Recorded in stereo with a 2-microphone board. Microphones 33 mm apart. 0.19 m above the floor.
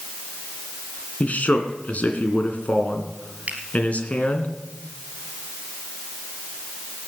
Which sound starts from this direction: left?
A man speaking, at 1.2 s.